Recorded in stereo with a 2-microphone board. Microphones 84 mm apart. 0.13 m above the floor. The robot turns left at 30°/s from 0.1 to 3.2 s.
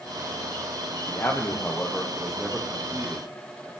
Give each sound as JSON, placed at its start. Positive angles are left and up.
{"t": 1.1, "sound": "a man speaking", "side_deg": 40, "distance_m": 3.0}